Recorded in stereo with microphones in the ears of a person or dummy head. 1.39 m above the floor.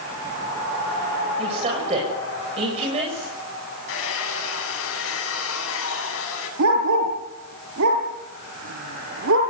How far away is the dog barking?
About 6.5 m.